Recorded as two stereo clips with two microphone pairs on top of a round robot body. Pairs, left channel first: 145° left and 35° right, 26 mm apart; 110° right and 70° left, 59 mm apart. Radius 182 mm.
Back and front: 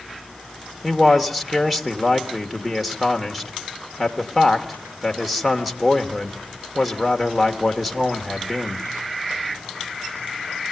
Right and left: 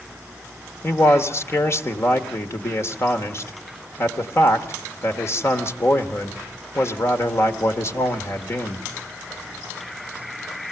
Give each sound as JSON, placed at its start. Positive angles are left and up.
{"t": 0.8, "sound": "a man speaking", "azimuth_deg": -110, "distance_m": 1.7}